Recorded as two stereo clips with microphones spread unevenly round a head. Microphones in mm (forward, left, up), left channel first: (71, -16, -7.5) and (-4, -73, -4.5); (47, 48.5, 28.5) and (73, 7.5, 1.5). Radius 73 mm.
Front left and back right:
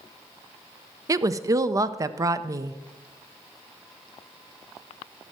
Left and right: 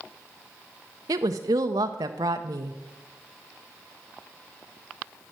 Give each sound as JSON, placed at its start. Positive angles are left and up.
{"t": 1.1, "sound": "a woman speaking", "azimuth_deg": -100, "distance_m": 0.6}